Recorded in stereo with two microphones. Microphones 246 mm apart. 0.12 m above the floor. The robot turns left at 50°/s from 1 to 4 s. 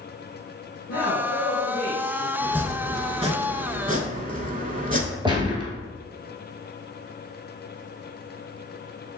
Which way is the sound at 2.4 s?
5° right.